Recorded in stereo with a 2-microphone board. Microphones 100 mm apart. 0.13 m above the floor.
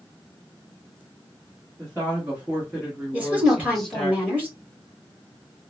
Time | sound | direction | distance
1.8 | a woman speaking | 25° right (ahead or behind) | 2 m
3.1 | a woman speaking | 15° right (ahead or behind) | 2.5 m